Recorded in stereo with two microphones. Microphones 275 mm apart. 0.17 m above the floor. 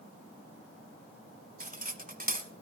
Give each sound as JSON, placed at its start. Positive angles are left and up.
{"t": 1.6, "sound": "cutlery clinking", "side_deg": -30, "distance_m": 0.8}